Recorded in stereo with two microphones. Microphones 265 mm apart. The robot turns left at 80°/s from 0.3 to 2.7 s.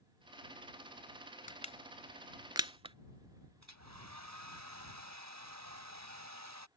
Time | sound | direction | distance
1.5 | crushing | 30° left (ahead or behind) | ?
3.6 | a hair dryer | 70° right (ahead or behind) | ?